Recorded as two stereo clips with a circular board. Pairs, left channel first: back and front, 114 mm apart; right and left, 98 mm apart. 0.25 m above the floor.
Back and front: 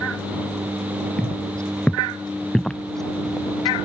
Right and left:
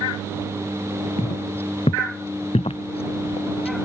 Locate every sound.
1.2 s footsteps: 100° right; by 3.8 s 90° right